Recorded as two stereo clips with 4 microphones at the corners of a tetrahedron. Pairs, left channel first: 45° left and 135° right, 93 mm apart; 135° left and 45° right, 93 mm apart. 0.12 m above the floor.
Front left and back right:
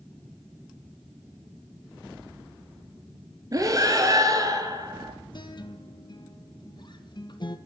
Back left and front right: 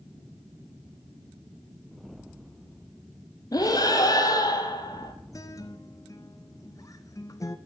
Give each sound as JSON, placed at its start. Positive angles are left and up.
{"t": 3.5, "sound": "breathing", "azimuth_deg": 180, "distance_m": 1.3}
{"t": 5.3, "sound": "a guitar", "azimuth_deg": 85, "distance_m": 0.7}